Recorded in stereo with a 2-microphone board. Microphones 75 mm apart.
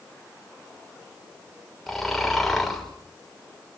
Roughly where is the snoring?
Centre.